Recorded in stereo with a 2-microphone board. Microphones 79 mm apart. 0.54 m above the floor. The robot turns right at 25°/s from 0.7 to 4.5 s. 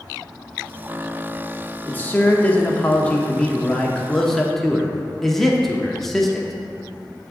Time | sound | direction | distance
1.9 | a man speaking | 20° left (ahead or behind) | 0.8 m